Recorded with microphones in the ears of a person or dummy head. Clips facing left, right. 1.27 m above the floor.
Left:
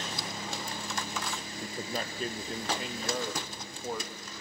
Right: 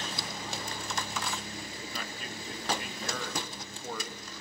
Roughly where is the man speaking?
Left.